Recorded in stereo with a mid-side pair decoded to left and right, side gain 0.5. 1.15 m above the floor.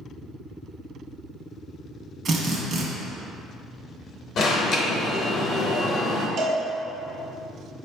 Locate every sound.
2.2 s a drill: 50° right, 0.9 m
4.4 s an alarm: 55° left, 0.8 m
6.4 s a cowbell: 70° right, 1.3 m